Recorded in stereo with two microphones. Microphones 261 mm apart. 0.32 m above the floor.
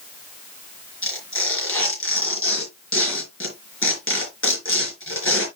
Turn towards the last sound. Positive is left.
turn(degrees=55)  # may be behind; listen again after turning